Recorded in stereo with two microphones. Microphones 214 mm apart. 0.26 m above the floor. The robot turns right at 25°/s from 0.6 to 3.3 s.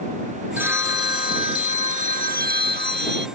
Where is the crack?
No crack in this recording.